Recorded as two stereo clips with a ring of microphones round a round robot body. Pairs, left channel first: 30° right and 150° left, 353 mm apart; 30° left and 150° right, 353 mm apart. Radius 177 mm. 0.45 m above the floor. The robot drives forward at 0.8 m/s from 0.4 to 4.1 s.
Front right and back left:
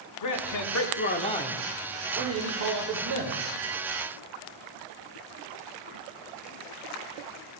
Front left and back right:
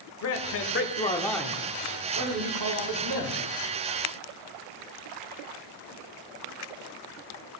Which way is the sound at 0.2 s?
10° right.